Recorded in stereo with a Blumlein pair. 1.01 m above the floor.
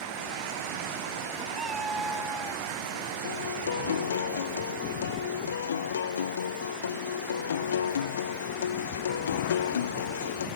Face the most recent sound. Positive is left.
turn(degrees=65)